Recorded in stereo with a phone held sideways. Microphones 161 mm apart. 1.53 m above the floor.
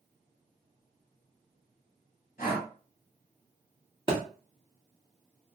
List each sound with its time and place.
2.4 s breathing: 60° left (ahead or behind), 1.7 m
4.1 s a thud: 30° right (ahead or behind), 1.1 m